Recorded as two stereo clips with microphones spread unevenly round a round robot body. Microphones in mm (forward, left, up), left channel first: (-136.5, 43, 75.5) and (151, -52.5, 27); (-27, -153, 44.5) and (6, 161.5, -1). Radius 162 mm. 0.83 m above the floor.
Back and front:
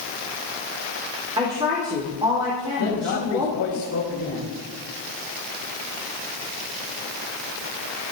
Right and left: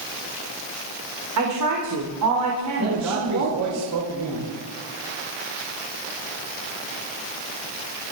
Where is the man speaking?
115° left, 3 m.